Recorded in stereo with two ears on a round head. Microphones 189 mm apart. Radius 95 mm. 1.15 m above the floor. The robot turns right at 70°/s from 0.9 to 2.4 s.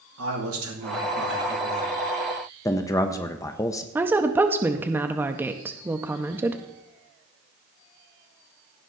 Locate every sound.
0.2 s a man speaking: 90° right, 2.5 m; by 1.9 s 15° right, 2.5 m
2.6 s a man speaking: 15° left (ahead or behind), 0.6 m
4.0 s a woman speaking: 10° right (ahead or behind), 0.6 m